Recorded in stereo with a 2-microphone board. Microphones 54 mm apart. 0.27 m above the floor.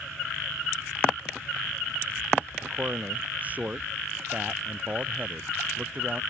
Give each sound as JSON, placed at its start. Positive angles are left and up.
{"t": 2.6, "sound": "a man speaking", "side_deg": -30}